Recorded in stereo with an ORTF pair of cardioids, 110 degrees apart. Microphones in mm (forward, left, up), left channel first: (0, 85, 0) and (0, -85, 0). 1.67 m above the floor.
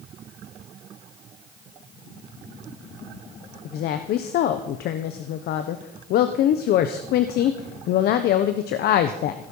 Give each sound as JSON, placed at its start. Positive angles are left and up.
{"t": 3.6, "sound": "a woman speaking", "azimuth_deg": 70, "distance_m": 0.9}